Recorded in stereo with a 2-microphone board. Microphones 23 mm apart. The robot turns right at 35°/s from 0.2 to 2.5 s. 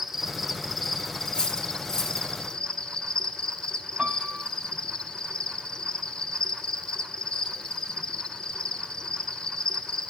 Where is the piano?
75° right (ahead or behind), 1.6 m.